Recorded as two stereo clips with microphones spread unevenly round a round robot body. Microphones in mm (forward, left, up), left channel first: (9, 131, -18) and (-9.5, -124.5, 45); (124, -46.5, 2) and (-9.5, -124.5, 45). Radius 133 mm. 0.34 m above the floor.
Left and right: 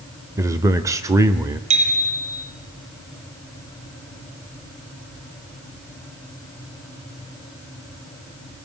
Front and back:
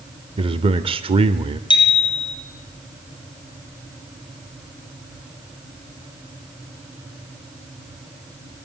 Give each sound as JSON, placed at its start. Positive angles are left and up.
{"t": 0.4, "sound": "a man speaking", "azimuth_deg": 170, "distance_m": 1.0}
{"t": 1.7, "sound": "a bicycle bell", "azimuth_deg": -30, "distance_m": 6.5}